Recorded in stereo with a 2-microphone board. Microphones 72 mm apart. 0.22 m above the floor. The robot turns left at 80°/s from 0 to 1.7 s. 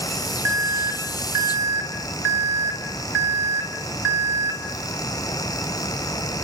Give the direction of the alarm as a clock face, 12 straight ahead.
1 o'clock.